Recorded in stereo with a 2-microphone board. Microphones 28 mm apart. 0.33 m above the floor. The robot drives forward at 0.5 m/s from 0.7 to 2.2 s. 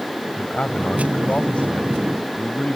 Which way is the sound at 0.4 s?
50° left (ahead or behind).